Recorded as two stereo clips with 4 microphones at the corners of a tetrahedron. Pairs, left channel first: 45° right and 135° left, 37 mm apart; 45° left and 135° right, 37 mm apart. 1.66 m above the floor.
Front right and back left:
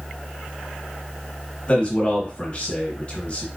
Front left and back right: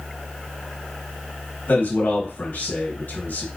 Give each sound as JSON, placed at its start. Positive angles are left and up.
{"t": 1.7, "sound": "a man speaking", "azimuth_deg": 10, "distance_m": 2.5}